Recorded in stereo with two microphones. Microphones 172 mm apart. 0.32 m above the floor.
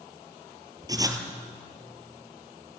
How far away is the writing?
About 1.8 m.